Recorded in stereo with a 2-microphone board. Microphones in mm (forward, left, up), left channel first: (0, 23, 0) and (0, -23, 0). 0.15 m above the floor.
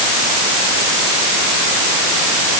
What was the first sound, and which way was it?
Only background noise.